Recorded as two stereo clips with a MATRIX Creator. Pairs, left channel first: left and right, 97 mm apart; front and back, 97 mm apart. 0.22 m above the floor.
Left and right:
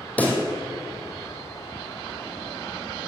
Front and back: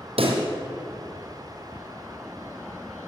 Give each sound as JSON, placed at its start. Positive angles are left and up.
{"t": 0.2, "sound": "a pop", "azimuth_deg": 165, "distance_m": 2.0}